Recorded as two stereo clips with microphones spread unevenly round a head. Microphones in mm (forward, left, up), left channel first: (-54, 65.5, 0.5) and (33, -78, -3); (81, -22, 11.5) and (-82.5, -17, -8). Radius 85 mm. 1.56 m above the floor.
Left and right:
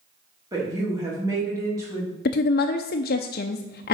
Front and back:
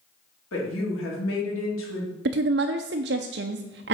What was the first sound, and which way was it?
A woman speaking, 15° left.